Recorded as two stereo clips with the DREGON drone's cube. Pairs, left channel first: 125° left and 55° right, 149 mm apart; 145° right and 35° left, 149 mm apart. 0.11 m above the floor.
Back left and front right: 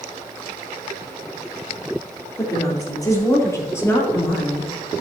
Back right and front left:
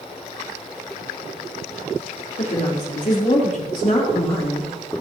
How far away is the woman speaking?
About 4 m.